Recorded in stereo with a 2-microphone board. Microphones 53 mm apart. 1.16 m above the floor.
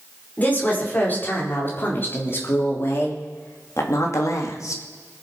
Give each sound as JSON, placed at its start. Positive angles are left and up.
{"t": 0.4, "sound": "a woman speaking", "side_deg": 30, "distance_m": 4.5}